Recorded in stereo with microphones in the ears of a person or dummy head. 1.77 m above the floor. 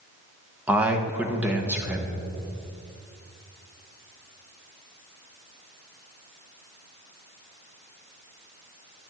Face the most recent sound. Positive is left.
turn(degrees=-10)  # may be behind; listen again after turning